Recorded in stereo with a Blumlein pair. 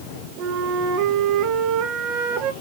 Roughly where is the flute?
Ahead right.